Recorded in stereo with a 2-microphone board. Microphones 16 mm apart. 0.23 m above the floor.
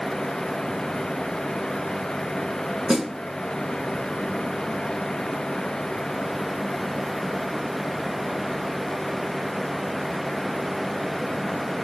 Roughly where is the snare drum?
Right.